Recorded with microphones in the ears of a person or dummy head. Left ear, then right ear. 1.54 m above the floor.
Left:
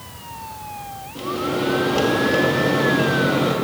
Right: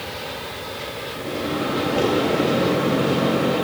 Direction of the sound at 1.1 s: 35° left (ahead or behind).